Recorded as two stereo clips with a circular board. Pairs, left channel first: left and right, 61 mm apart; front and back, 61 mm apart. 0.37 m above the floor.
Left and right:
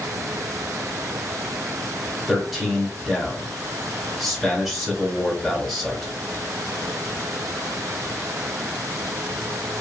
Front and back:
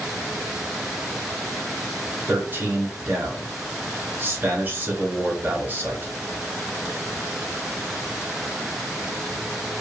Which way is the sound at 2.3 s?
Straight behind.